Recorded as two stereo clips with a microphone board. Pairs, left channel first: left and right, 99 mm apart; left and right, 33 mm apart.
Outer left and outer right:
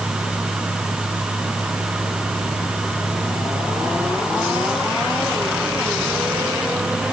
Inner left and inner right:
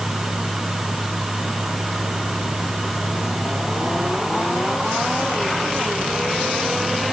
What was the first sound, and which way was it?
Only background noise.